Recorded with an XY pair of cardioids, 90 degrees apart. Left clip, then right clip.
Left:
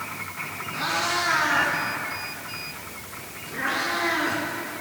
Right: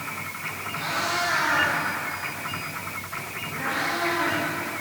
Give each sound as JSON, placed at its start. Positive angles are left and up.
{"t": 0.7, "sound": "a cat meowing", "azimuth_deg": 50, "distance_m": 8.5}